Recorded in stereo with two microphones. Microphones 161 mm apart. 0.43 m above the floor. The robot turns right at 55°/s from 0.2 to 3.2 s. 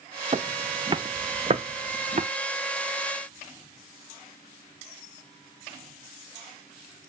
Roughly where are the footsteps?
Right.